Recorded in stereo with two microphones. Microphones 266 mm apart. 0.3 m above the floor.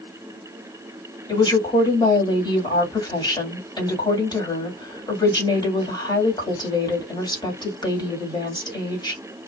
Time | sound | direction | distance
1.3 | a woman speaking | 15° left (ahead or behind) | 1.9 m